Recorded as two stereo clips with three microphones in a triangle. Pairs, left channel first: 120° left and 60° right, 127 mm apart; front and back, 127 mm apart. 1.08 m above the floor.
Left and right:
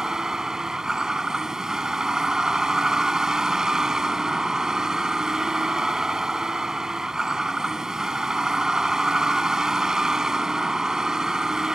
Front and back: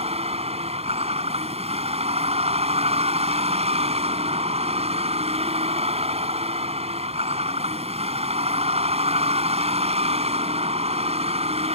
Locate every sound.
0.0 s a vehicle: 145° right